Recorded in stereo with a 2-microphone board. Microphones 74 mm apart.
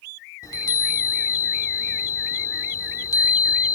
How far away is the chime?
About 0.9 m.